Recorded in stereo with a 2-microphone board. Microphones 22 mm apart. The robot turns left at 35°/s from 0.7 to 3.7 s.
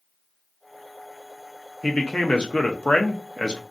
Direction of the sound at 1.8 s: 110° left.